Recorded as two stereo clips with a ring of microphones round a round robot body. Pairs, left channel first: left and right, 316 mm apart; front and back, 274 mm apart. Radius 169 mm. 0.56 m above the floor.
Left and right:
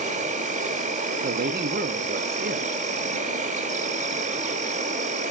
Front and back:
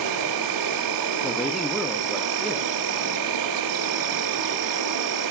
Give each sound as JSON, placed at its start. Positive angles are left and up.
{"t": 0.0, "sound": "an insect", "azimuth_deg": -160, "distance_m": 0.7}
{"t": 1.2, "sound": "a man speaking", "azimuth_deg": -90, "distance_m": 0.7}